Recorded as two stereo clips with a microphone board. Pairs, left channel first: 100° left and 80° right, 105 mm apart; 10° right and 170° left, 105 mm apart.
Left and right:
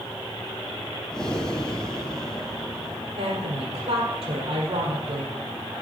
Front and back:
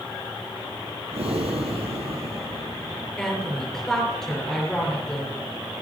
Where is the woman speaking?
95° right, 4.5 m.